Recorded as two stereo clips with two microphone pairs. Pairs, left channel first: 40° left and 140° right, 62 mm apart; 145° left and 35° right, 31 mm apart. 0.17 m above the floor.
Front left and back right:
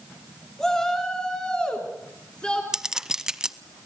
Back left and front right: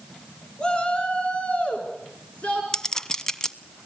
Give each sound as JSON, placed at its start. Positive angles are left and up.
{"t": 0.6, "sound": "a shout", "azimuth_deg": 115, "distance_m": 1.9}
{"t": 2.7, "sound": "a clink", "azimuth_deg": 155, "distance_m": 0.6}